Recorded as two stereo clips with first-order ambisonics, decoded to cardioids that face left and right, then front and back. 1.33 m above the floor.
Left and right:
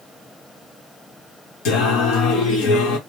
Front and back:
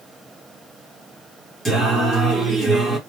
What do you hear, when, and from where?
1.6 s singing: 100° left, 1.2 m